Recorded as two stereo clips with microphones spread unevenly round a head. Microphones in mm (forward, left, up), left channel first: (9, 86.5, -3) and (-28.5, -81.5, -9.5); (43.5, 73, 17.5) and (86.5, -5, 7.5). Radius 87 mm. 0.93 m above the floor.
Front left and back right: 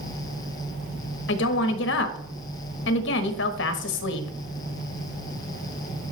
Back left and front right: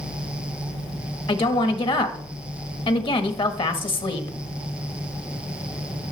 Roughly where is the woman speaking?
Left.